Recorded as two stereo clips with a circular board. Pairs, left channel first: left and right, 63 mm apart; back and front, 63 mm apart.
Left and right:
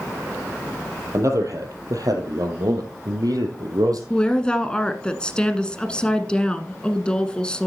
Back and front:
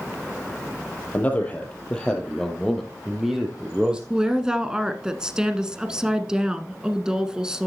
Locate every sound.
1.1 s a man speaking: 120° right, 3 m; by 4.0 s 75° right, 3.5 m
4.1 s a woman speaking: 50° left, 1.0 m